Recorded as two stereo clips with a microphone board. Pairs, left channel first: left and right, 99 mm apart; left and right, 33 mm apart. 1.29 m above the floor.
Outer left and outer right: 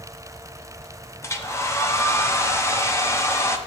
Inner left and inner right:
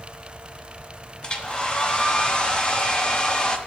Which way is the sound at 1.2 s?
30° left (ahead or behind).